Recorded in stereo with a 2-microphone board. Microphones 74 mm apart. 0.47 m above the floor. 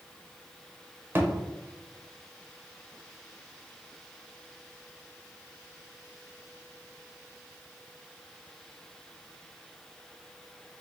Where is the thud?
30° right (ahead or behind), 0.6 m.